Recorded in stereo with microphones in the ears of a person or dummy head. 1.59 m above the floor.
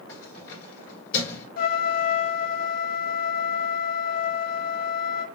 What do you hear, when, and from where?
0.1 s keys jangling: 45° left (ahead or behind), 3 m
1.6 s a trumpet: 60° left (ahead or behind), 0.7 m